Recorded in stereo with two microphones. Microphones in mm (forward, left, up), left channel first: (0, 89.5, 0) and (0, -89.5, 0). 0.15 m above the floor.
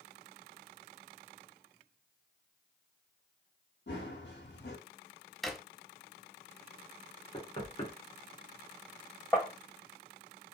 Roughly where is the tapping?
Centre.